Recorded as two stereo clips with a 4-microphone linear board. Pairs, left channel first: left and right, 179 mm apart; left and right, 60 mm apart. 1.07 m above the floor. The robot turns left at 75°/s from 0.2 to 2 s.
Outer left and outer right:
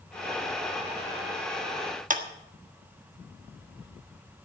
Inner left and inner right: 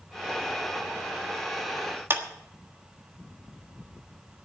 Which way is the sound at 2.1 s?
45° right (ahead or behind).